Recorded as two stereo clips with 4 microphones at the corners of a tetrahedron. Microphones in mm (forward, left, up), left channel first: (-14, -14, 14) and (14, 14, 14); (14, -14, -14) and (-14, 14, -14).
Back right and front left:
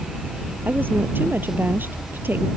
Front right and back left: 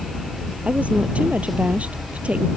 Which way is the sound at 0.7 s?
80° left.